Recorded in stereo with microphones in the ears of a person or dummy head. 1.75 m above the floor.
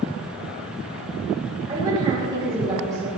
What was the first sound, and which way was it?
A woman speaking, 20° right (ahead or behind).